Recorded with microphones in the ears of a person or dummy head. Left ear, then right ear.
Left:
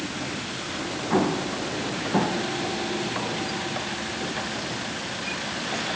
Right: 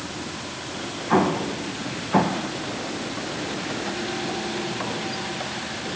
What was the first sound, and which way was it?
An explosion, 35° right (ahead or behind).